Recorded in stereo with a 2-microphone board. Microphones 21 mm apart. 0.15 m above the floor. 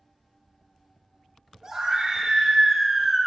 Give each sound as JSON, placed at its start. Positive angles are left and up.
{"t": 1.6, "sound": "a scream", "side_deg": -35, "distance_m": 3.0}